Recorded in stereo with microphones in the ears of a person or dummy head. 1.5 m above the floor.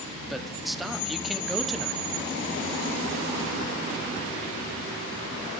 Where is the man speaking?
Centre (ahead or behind), 1.0 m.